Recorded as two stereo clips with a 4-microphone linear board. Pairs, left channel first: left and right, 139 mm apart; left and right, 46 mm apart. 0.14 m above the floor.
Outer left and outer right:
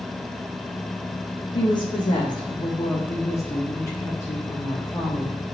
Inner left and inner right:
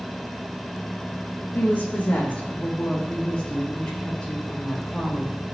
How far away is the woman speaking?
About 6.5 m.